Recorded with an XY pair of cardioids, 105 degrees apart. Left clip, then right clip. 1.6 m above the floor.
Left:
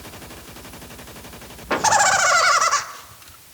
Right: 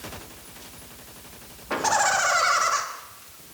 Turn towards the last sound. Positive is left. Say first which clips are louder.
# left 5 dB
turn(degrees=40)